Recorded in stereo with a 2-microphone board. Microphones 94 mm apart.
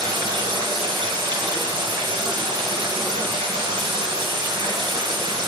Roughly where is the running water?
Right.